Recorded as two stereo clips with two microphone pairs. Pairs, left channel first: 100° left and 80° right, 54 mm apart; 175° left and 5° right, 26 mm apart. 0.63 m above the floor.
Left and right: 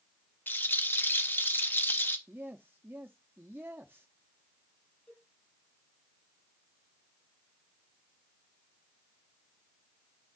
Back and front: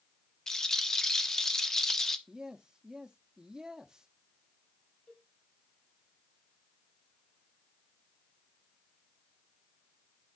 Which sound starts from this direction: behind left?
A rattle, at 0.5 s.